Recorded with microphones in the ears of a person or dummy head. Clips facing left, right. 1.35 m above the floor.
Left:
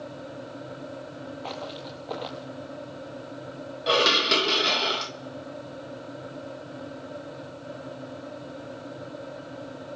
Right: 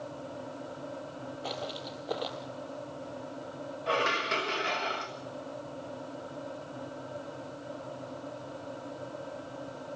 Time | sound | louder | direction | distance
1.4 | footsteps | even | 15° right (ahead or behind) | 2.0 m
3.9 | dishes clattering | left 7 dB | 55° left (ahead or behind) | 1.0 m